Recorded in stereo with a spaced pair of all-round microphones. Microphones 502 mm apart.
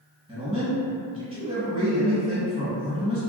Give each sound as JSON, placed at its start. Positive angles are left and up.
{"t": 0.3, "sound": "a man speaking", "side_deg": -10, "distance_m": 1.2}